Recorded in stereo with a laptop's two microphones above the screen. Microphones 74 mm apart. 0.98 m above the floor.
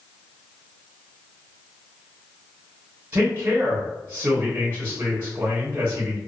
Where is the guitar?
No guitar in this recording.